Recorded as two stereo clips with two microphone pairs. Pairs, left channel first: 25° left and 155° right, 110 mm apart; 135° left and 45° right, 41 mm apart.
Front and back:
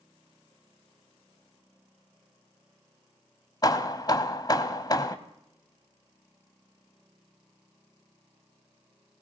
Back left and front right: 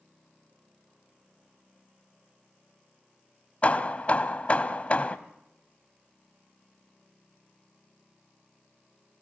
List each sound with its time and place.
3.6 s hammering: 75° left, 1.2 m